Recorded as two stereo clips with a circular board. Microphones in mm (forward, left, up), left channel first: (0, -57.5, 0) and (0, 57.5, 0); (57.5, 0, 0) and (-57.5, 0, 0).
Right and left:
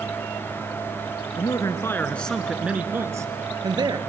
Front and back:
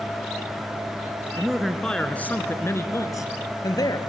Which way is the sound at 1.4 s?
95° right.